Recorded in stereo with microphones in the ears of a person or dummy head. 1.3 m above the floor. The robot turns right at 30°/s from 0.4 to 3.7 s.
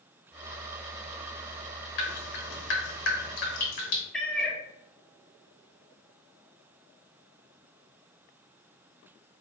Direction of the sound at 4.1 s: Centre (ahead or behind).